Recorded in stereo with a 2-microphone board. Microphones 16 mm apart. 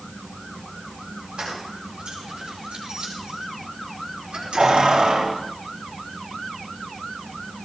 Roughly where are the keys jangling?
Right.